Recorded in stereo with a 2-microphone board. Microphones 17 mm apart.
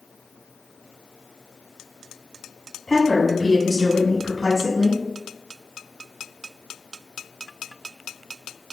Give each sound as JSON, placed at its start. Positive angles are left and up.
{"t": 2.9, "sound": "a woman speaking", "side_deg": 25, "distance_m": 1.3}